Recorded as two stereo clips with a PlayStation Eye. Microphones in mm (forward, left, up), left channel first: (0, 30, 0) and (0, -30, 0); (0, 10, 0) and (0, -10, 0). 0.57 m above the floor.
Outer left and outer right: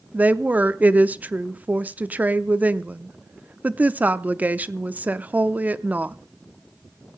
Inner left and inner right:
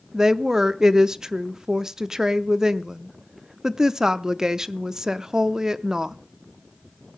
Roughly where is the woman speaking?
Right.